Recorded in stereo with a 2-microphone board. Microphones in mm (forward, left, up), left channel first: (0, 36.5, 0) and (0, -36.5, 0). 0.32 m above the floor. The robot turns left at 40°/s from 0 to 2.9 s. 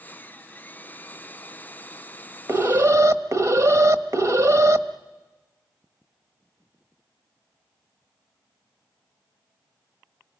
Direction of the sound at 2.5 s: 40° right (ahead or behind).